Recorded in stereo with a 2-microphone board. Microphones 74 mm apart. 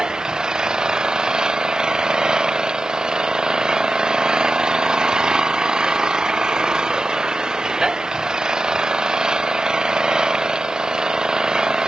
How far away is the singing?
No singing in this recording.